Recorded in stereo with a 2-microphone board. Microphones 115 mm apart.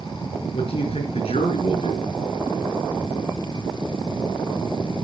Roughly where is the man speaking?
Left.